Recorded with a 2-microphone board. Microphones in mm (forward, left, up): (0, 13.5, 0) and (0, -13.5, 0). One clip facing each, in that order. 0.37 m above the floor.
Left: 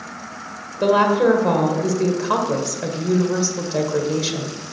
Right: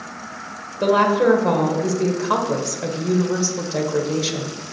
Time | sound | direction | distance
0.8 | a woman speaking | 10° left (ahead or behind) | 1.3 m